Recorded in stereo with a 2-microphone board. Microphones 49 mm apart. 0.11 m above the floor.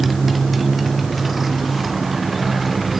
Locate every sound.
0.0 s a motorcycle: centre (ahead or behind)